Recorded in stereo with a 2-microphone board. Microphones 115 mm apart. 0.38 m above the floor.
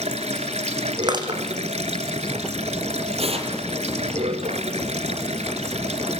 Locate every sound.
0.0 s running water: 80° right, 1.7 m
1.0 s crushing: 40° right (ahead or behind), 4.5 m
3.2 s tearing paper: 65° right (ahead or behind), 4 m